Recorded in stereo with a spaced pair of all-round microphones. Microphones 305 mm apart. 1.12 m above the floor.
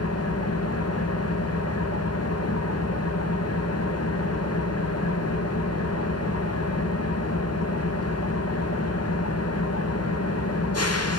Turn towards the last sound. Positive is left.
turn(degrees=55)  # may be behind; listen again after turning